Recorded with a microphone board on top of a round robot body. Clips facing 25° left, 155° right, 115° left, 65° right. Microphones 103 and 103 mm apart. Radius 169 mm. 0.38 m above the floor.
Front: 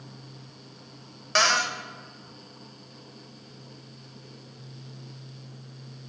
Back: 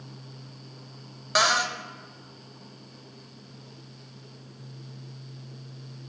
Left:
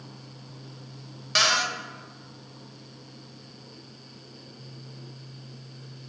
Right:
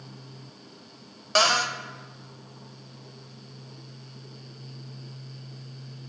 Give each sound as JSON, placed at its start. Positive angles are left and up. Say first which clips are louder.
{"t": 1.4, "sound": "a cupboard door", "louder": "even, right 3 dB", "azimuth_deg": -80, "distance_m": 0.7}